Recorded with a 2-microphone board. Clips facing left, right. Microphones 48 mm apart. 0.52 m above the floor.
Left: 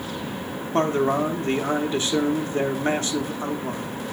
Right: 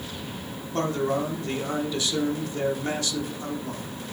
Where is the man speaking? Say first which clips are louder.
Left 4 dB; 35° left (ahead or behind), 0.8 m.